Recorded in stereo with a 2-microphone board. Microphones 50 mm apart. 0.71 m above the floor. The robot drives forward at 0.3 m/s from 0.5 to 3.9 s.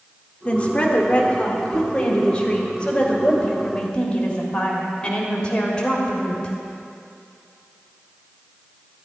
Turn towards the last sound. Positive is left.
turn(degrees=15)  # may be behind; listen again after turning